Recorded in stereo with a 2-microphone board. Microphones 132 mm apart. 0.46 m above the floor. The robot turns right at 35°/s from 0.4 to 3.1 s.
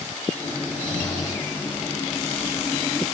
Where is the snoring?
125° left, 2 m; by 1.5 s 155° left, 2 m.